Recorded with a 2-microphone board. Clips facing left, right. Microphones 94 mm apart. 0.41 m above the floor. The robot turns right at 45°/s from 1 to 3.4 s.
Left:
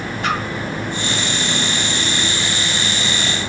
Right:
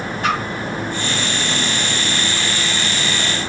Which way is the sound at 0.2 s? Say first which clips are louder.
Right 1 dB; 45° right (ahead or behind).